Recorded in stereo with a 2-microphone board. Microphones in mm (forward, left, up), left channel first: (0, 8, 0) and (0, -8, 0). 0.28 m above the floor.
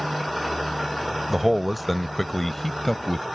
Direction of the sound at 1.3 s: 10° right (ahead or behind).